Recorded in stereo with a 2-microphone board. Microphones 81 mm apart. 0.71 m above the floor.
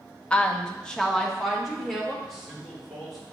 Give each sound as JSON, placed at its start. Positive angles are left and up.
{"t": 0.3, "sound": "a woman speaking", "side_deg": 15, "distance_m": 0.5}
{"t": 2.2, "sound": "a man speaking", "side_deg": 5, "distance_m": 2.5}